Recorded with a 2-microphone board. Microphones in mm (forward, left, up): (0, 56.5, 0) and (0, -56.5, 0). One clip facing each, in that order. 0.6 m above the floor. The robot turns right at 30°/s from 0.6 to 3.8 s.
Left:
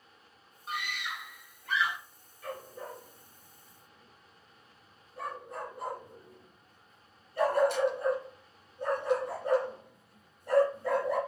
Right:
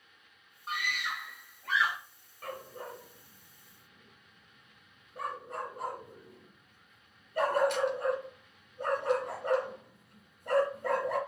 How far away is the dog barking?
About 2 m.